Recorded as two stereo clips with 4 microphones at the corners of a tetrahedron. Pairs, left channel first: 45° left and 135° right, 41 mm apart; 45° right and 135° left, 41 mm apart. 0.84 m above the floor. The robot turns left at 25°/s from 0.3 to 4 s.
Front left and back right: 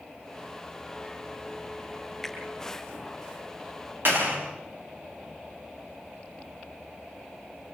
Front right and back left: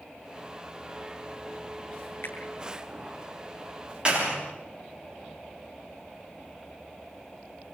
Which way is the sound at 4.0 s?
160° right.